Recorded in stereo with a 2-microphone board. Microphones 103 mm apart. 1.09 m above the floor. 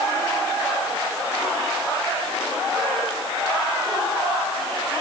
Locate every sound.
Only background noise.